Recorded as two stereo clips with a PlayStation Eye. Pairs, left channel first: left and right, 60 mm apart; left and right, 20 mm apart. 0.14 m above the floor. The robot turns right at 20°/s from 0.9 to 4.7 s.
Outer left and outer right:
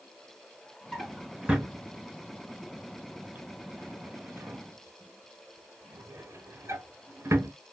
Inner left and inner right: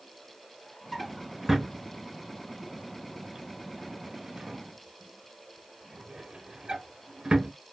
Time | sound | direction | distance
0.9 | a drawer | 10° right (ahead or behind) | 0.8 m